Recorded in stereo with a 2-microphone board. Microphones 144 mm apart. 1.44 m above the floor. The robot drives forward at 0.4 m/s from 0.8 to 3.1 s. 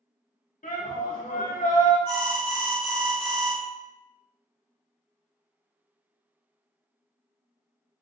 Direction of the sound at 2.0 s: 35° right (ahead or behind).